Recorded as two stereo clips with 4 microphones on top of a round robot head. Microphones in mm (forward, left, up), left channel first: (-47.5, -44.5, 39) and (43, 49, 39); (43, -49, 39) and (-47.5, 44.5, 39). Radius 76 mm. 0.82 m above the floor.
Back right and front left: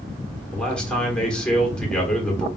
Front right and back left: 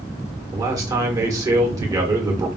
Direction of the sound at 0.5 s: 150° left.